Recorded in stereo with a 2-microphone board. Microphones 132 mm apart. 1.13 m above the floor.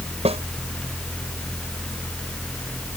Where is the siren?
No siren in this recording.